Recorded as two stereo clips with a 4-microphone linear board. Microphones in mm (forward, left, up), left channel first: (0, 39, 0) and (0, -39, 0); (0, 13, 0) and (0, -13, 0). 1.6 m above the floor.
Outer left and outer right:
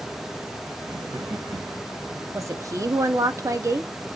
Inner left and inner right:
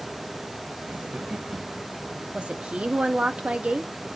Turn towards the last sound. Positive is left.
turn(degrees=-40)  # may be behind; listen again after turning